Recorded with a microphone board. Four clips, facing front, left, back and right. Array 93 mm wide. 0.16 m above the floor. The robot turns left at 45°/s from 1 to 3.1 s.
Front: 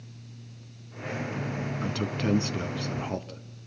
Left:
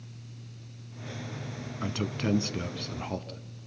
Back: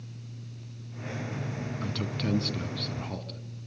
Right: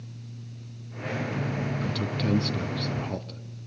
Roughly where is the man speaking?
Ahead left.